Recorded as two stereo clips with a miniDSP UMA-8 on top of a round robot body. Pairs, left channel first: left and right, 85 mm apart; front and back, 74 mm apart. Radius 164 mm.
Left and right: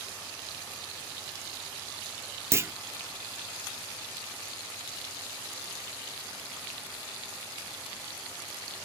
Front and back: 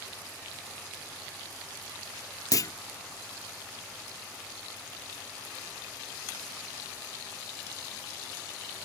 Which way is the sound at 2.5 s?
35° right.